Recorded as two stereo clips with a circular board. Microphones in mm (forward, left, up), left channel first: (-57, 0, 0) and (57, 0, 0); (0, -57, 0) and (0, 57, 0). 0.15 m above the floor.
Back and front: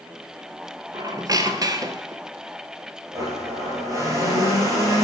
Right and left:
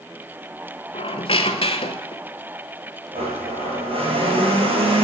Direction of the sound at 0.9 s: 55° right.